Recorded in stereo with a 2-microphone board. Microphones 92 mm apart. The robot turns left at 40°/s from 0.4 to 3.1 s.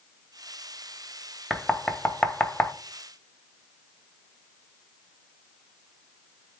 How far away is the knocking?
About 0.5 m.